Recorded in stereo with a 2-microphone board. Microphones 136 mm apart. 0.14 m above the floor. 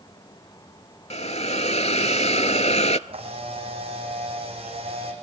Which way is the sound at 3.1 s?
50° right (ahead or behind).